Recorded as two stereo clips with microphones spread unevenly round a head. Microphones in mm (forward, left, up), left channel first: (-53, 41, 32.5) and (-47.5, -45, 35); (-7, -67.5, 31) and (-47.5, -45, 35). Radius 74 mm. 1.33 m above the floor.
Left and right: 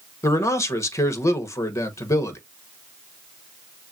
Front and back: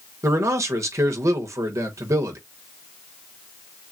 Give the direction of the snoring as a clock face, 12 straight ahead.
No snoring in this recording.